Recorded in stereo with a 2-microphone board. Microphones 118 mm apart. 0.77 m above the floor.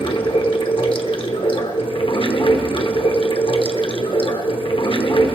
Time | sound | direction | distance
0.0 | running water | 50° left (ahead or behind) | 0.9 m